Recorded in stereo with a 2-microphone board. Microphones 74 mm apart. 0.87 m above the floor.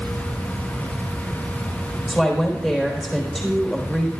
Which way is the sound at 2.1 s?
Centre (ahead or behind).